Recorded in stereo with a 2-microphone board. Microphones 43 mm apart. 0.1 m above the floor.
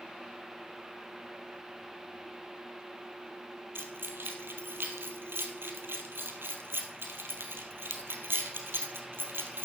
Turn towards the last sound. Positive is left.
turn(degrees=-65)  # may be behind; listen again after turning